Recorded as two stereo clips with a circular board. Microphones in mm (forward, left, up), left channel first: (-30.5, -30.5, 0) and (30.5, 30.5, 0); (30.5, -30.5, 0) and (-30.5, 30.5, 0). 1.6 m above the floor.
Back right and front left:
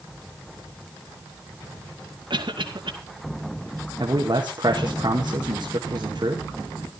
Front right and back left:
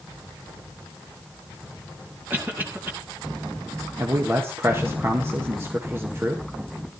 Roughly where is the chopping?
No chopping in this recording.